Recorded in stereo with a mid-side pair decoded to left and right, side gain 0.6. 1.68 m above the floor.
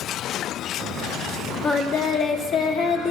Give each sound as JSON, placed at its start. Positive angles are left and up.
{"t": 1.6, "sound": "singing", "azimuth_deg": 50, "distance_m": 1.7}